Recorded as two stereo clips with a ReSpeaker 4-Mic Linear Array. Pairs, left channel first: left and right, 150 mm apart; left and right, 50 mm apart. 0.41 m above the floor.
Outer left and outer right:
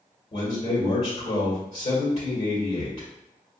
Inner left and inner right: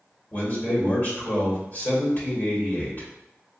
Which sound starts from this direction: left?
A man speaking, at 0.3 s.